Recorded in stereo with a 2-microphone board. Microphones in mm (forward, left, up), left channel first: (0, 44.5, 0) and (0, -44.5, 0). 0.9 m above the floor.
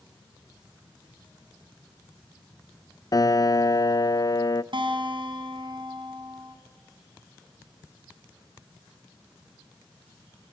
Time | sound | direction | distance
3.1 | a piano | 45° left (ahead or behind) | 0.5 m
4.7 | a guitar | 65° right (ahead or behind) | 4 m